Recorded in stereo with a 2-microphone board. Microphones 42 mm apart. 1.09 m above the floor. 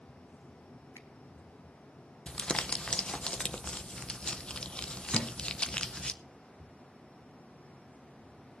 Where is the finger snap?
80° left, 1.4 m.